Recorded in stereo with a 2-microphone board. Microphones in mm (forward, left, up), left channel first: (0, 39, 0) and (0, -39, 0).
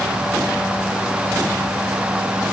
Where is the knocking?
I don't hear knocking.